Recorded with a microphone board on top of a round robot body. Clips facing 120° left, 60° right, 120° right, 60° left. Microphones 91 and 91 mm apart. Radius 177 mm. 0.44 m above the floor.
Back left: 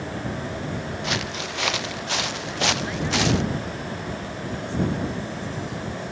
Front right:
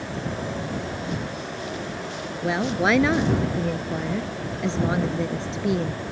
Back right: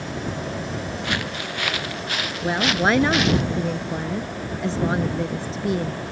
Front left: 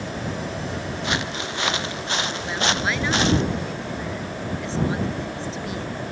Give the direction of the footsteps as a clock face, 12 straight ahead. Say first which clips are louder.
Back left 1 dB, front left 1 dB; 8 o'clock.